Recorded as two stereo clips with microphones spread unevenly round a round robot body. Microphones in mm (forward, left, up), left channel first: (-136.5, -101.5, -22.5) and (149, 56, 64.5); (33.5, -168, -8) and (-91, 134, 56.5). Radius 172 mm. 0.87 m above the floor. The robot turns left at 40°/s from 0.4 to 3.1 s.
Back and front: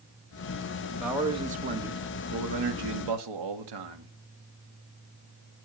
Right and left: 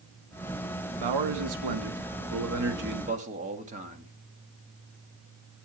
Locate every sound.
1.0 s a man speaking: 125° left, 1.8 m; by 4.1 s 40° left, 1.8 m